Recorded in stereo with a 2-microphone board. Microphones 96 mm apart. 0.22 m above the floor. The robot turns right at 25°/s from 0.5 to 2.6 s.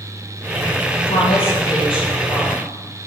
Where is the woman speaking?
95° left, 5 m; by 2.7 s 130° left, 5 m.